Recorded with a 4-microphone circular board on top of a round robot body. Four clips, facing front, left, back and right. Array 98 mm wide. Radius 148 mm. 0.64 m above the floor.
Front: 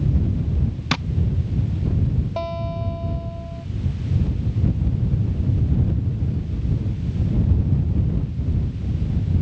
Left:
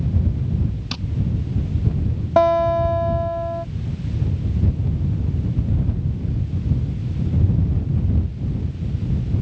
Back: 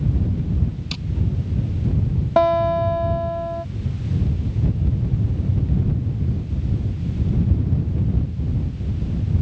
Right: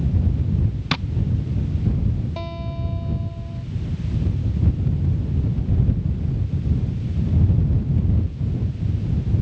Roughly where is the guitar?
Behind left.